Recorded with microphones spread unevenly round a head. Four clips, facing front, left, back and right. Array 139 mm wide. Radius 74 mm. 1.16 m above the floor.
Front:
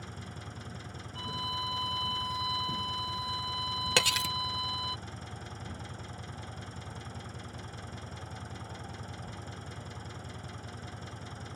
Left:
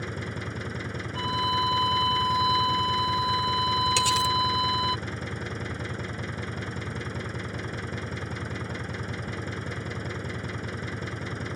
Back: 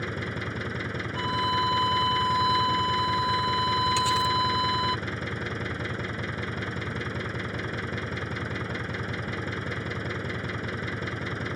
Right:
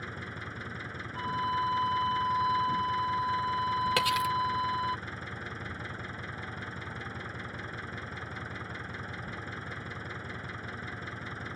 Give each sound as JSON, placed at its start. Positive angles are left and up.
{"t": 0.0, "sound": "an engine running", "azimuth_deg": 150}
{"t": 1.1, "sound": "a violin", "azimuth_deg": 115}
{"t": 4.0, "sound": "cutlery clinking", "azimuth_deg": -25}